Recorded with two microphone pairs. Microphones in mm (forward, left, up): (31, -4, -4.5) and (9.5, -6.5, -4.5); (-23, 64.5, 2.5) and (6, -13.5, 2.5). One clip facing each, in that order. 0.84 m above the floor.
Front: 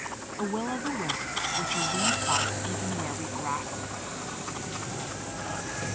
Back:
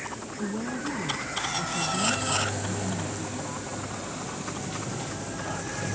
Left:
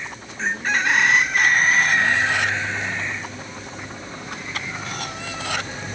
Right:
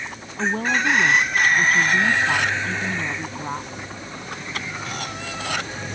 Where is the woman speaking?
35° right.